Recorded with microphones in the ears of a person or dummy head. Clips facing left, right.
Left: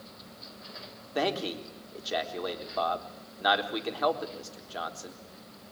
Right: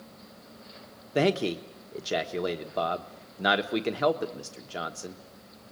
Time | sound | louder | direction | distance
1.1 | a man speaking | right 5 dB | 35° right (ahead or behind) | 1.1 m